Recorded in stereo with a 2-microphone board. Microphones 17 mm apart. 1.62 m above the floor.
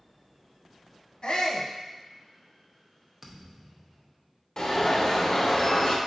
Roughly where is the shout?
Left.